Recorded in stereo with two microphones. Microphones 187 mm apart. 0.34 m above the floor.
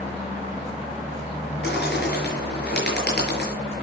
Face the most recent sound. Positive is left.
turn(degrees=60)  # may be behind; listen again after turning